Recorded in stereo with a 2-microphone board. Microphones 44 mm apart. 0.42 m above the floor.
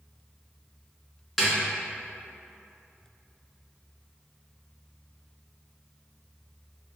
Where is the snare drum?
Centre (ahead or behind), 0.9 m.